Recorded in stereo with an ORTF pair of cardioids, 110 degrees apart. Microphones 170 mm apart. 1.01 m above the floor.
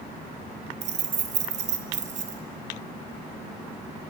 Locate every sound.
0.8 s keys jangling: 45° right, 0.7 m